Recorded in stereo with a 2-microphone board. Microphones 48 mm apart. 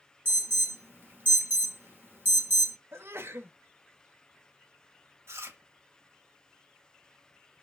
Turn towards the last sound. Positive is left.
turn(degrees=-75)  # may be behind; listen again after turning